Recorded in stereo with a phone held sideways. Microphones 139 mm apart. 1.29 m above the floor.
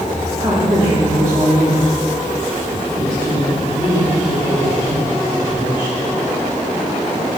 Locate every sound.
0.4 s a woman speaking: 25° right (ahead or behind), 3.5 m